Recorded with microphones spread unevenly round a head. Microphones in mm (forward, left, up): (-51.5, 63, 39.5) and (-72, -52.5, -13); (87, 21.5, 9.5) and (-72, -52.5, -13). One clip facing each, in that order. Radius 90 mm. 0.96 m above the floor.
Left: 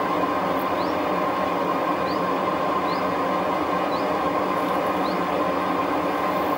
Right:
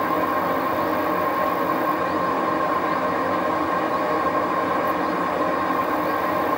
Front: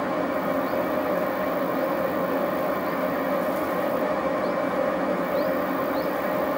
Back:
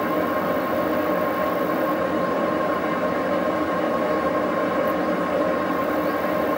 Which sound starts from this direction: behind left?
A fan, at 0.0 s.